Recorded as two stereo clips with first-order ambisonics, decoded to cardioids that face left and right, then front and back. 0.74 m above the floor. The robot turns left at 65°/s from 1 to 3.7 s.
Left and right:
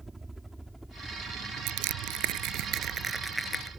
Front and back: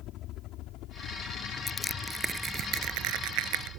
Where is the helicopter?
15° right; by 3.8 s 165° right.